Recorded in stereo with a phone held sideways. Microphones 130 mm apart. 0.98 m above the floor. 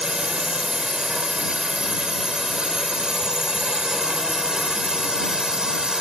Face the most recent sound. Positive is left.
turn(degrees=-5)  # may be behind; listen again after turning